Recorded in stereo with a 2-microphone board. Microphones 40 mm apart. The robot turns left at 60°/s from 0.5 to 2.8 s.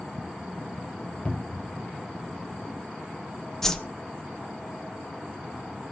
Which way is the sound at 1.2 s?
35° left (ahead or behind).